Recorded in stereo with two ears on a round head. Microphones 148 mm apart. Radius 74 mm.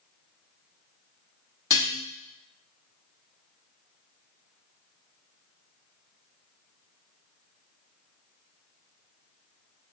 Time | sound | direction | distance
1.7 | dishes clattering | 20° left (ahead or behind) | 1.0 m